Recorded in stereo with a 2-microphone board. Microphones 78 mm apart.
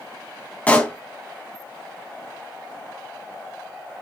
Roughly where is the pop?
Centre.